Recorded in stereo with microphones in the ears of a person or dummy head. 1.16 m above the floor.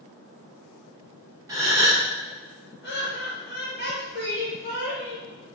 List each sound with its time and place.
1.5 s a gasp: 20° right (ahead or behind), 1.8 m
2.8 s laughter: 50° left (ahead or behind), 1.3 m